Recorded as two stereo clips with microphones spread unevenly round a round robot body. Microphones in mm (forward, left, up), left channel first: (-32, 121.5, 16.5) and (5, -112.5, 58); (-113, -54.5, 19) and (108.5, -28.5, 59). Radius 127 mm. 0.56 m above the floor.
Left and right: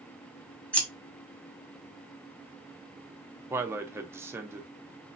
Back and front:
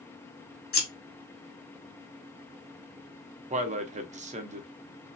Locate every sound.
0.7 s scissors: 175° left, 1.5 m
3.5 s a man speaking: 10° left, 0.6 m